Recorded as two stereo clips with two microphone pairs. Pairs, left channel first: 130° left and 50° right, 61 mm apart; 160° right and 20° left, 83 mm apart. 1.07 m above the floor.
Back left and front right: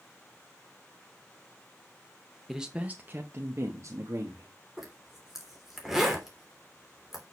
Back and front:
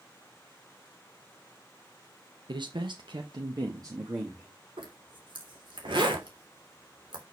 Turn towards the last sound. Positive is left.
turn(degrees=30)